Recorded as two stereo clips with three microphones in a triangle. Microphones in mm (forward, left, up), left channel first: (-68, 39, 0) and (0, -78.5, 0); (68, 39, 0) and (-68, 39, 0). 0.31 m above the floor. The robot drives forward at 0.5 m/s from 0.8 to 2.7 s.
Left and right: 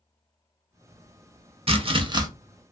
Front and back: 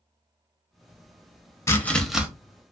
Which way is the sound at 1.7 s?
60° right.